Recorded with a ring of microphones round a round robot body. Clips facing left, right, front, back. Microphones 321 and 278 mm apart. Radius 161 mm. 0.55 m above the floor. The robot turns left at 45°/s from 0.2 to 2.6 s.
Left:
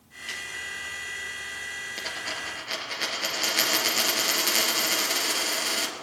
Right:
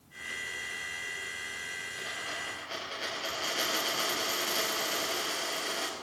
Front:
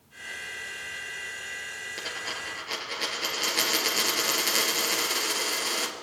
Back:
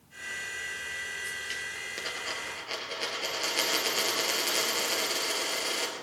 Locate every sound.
2.0 s a dropped coin: 90° left, 3 m; by 6.0 s 65° left, 3 m